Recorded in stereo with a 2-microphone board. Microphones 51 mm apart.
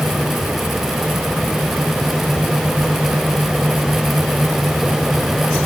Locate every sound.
Only background noise.